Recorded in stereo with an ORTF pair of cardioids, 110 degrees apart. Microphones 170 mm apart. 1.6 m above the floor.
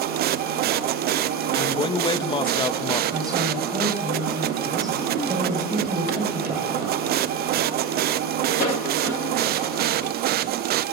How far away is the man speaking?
About 2 m.